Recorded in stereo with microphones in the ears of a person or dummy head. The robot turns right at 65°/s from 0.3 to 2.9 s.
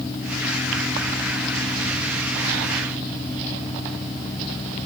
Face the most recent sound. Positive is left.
No sound to turn to.